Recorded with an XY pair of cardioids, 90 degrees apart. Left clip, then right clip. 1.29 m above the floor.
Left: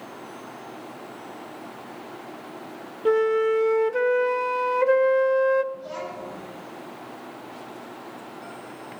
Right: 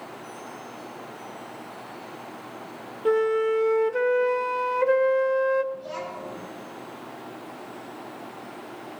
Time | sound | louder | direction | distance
3.0 | a flute | left 2 dB | 10° left | 0.5 m
5.7 | a child speaking | even | 15° right | 7 m